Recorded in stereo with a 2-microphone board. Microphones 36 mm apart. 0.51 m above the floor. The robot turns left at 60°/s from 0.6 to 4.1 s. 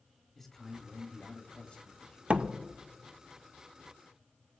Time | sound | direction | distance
0.3 | a man speaking | 5° left (ahead or behind) | 1.2 m
2.3 | a door slam | 40° right (ahead or behind) | 0.6 m